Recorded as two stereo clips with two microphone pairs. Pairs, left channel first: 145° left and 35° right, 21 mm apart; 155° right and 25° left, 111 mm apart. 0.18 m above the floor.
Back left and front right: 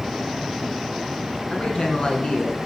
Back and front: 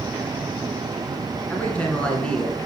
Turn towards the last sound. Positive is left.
turn(degrees=125)